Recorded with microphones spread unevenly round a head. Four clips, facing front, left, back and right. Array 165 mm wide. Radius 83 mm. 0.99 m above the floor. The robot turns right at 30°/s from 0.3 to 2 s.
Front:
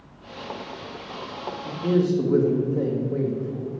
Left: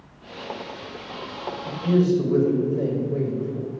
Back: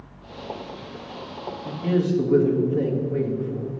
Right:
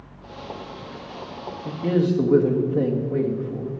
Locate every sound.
1.6 s a man speaking: 80° right, 1.4 m; by 3.7 s 70° right, 1.4 m